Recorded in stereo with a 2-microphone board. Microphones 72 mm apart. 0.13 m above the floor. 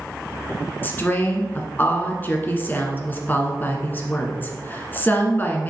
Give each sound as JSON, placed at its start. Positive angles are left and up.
{"t": 0.8, "sound": "a woman speaking", "side_deg": 30, "distance_m": 1.2}